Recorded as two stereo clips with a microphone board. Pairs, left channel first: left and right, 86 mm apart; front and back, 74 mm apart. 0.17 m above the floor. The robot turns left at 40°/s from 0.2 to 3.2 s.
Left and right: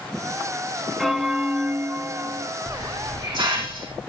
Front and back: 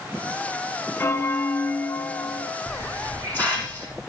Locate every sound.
1.0 s a bell: straight ahead, 0.6 m; by 2.5 s 60° right, 0.6 m
2.7 s a hiss: 50° right, 4.5 m; by 4.0 s 70° right, 4.5 m